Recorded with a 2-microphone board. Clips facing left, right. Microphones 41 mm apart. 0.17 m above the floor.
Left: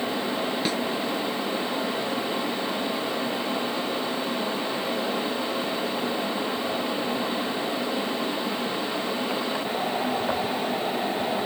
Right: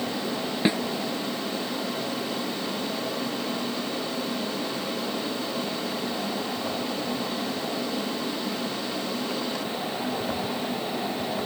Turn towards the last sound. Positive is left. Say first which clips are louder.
# right 8 dB
turn(degrees=-20)  # may be behind; listen again after turning